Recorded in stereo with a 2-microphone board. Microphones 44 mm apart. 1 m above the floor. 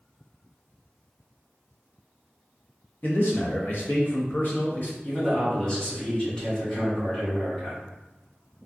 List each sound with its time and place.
3.0 s a man speaking: 50° left (ahead or behind), 0.7 m
5.0 s a man speaking: 20° left (ahead or behind), 1.5 m